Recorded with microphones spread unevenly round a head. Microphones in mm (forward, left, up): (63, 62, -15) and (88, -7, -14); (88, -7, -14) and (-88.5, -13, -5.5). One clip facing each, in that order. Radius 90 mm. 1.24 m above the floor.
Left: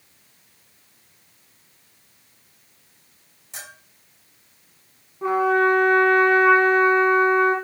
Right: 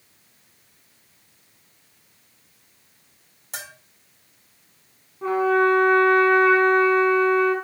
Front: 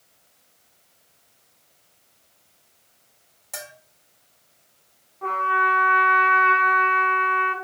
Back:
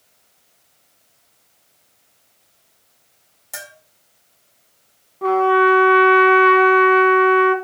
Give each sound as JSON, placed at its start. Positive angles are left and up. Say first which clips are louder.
{"t": 3.5, "sound": "a bell", "louder": "right 3 dB, even", "azimuth_deg": -95, "distance_m": 2.5}
{"t": 5.2, "sound": "a trumpet", "louder": "even, back 12 dB", "azimuth_deg": -170, "distance_m": 2.0}